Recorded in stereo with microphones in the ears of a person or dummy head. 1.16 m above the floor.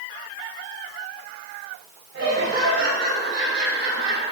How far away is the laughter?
About 6 m.